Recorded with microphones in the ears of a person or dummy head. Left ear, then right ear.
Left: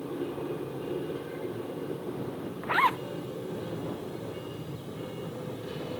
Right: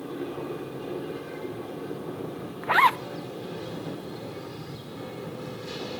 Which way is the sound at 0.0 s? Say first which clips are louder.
Right 1 dB; 20° right (ahead or behind).